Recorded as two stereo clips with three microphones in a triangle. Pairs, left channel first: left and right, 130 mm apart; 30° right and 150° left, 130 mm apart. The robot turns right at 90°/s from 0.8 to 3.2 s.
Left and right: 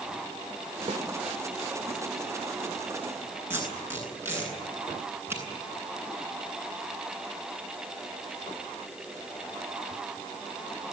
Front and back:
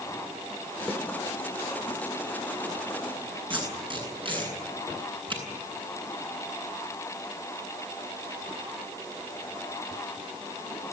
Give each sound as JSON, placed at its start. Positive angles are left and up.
{"t": 0.9, "sound": "a snare drum", "azimuth_deg": -105, "distance_m": 3.0}
{"t": 3.5, "sound": "tape being pulled", "azimuth_deg": -160, "distance_m": 9.5}